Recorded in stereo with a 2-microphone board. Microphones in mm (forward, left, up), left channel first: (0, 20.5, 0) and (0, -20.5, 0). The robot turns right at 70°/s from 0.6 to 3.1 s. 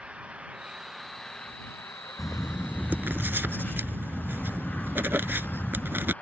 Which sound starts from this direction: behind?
Writing, at 2.2 s.